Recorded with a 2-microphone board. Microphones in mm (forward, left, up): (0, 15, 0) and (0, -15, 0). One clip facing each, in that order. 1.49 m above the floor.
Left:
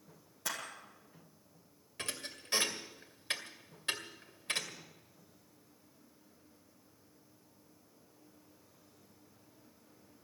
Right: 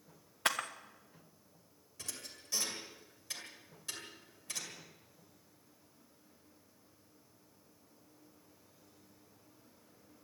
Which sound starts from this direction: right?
A camera shutter, at 0.5 s.